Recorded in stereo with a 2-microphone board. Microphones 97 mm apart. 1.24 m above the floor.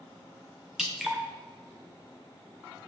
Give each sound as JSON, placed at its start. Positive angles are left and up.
{"t": 0.8, "sound": "dripping", "side_deg": -5, "distance_m": 0.5}